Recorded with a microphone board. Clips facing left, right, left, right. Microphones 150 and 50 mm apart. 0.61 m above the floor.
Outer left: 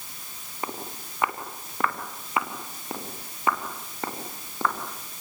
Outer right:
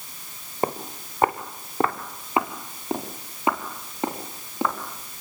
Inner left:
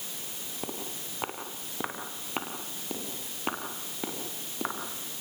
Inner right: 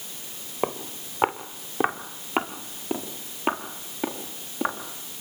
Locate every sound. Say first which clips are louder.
0.6 s footsteps: outer right 8 dB, inner right 10 dB; 45° right (ahead or behind), 3 m; by 4.8 s 15° right (ahead or behind), 6 m